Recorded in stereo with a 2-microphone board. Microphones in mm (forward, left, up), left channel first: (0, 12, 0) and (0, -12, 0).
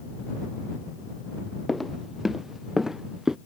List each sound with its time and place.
1.7 s footsteps: centre (ahead or behind); by 3.4 s 25° right (ahead or behind)